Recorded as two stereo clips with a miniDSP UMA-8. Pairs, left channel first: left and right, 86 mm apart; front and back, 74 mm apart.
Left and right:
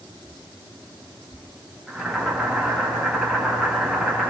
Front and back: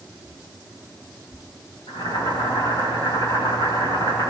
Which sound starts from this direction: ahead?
Boiling, at 1.9 s.